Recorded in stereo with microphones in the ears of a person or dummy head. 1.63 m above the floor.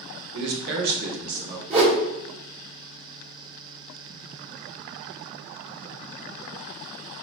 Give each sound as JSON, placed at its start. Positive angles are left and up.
{"t": 0.3, "sound": "a man speaking", "side_deg": -70, "distance_m": 0.7}
{"t": 1.7, "sound": "a whoosh", "side_deg": -35, "distance_m": 1.1}